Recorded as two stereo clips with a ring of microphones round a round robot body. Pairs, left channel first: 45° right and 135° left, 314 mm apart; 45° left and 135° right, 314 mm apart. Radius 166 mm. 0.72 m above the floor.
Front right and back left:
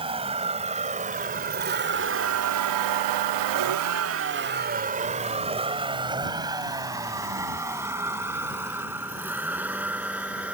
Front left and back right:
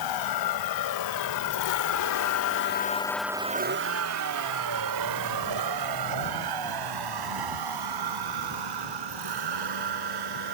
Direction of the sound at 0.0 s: 60° left.